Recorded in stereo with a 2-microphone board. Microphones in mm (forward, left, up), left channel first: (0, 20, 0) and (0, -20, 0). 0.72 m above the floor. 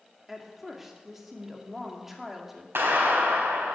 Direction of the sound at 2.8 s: 80° right.